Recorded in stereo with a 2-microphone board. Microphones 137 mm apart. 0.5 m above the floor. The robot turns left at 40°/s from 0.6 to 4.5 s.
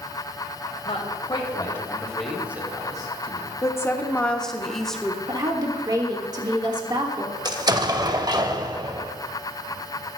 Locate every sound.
0.8 s a man speaking: 50° left (ahead or behind), 1.9 m; by 3.5 s 45° right (ahead or behind), 1.9 m
3.6 s a woman speaking: 40° left, 1.0 m; by 5.2 s 5° left, 1.0 m
5.3 s a woman speaking: 30° right (ahead or behind), 1.3 m
7.5 s an explosion: 30° right (ahead or behind), 0.6 m